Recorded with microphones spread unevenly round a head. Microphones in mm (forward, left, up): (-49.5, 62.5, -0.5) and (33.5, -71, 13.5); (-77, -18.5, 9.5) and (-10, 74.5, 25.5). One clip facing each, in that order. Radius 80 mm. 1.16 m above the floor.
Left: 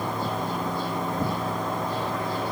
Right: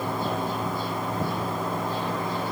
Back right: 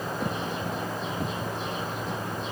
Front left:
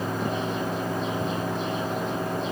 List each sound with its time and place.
Only background noise.